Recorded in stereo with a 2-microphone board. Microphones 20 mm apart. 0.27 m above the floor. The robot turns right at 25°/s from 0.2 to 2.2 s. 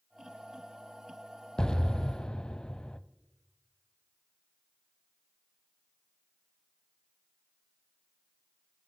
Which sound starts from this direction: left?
An explosion, at 1.6 s.